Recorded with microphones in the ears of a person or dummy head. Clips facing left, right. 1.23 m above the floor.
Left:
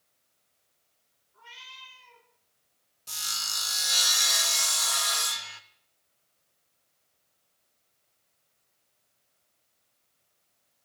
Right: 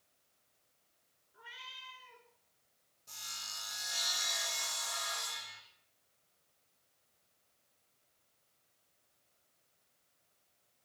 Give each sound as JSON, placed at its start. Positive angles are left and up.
{"t": 1.3, "sound": "a cat meowing", "side_deg": -15, "distance_m": 5.0}
{"t": 3.1, "sound": "sawing", "side_deg": 85, "distance_m": 1.5}